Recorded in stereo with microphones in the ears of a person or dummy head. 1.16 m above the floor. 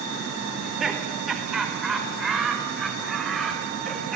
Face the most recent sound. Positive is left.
turn(degrees=-5)  # may be behind; listen again after turning